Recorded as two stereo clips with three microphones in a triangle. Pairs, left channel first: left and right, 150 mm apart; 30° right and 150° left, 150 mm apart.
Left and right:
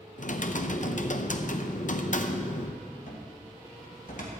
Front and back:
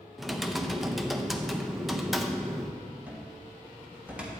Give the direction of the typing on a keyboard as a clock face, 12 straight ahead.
10 o'clock.